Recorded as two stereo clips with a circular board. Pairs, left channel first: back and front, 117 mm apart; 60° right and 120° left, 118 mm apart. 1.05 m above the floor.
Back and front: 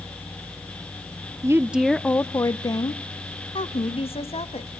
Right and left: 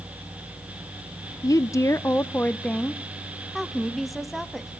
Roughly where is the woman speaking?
Ahead right.